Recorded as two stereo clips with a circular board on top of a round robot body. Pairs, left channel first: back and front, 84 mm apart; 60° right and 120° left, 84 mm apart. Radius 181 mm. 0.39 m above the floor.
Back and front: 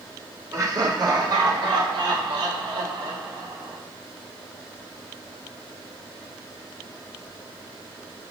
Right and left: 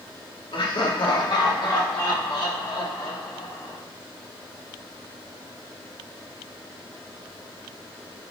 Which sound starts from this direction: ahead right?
Laughter, at 0.5 s.